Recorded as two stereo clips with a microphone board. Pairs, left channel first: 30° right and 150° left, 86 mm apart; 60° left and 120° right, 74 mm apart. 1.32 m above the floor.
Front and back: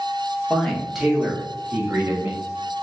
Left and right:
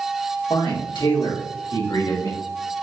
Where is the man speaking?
55° left, 1.3 m; by 2.4 s 80° left, 2 m.